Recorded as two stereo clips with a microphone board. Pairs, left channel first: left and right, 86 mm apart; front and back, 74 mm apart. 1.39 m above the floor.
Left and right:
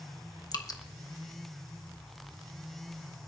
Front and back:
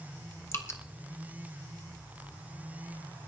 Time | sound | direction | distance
0.5 | dripping | 50° left | 1.1 m